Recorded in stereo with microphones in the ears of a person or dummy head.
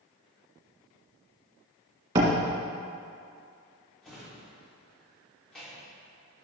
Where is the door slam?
30° right (ahead or behind), 1.8 m.